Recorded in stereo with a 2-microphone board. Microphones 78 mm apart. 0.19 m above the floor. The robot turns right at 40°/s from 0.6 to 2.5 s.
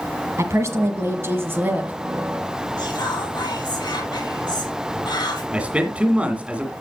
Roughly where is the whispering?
Left.